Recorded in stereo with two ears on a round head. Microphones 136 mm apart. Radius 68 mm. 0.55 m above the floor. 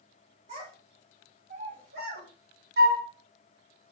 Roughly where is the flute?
Right.